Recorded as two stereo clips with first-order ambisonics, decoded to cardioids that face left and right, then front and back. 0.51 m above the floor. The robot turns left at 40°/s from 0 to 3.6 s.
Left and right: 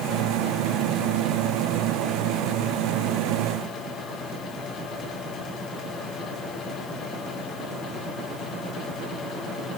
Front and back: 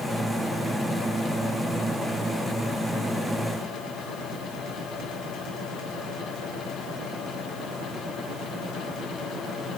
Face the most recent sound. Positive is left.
No sound to turn to.